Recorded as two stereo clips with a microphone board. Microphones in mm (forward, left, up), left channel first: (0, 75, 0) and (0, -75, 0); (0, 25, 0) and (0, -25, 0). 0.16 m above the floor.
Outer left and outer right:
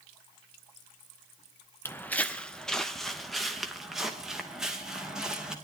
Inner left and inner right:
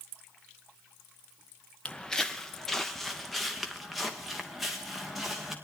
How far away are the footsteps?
About 0.8 m.